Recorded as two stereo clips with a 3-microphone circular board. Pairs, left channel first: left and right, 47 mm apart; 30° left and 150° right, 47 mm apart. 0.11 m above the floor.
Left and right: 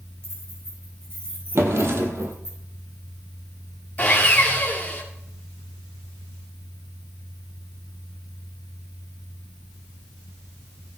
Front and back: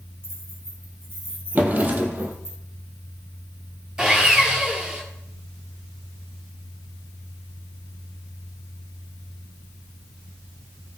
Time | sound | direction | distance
0.2 | keys jangling | 115° right | 4.5 m
1.6 | a drawer | 100° right | 1.3 m
4.0 | sawing | 140° left | 2.5 m